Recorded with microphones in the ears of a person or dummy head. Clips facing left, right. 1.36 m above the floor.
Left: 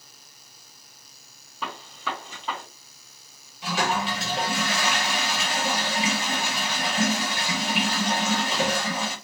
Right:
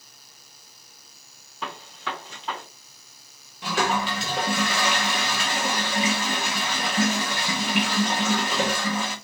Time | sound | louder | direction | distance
1.6 | a gunshot | left 1 dB | 10° left (ahead or behind) | 1.9 m
3.6 | a toilet flushing | right 1 dB | 50° right (ahead or behind) | 0.9 m